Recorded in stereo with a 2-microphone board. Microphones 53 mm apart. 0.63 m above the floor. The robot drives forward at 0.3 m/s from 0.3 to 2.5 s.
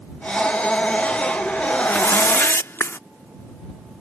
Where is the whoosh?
55° left (ahead or behind); by 3.0 s 45° left (ahead or behind).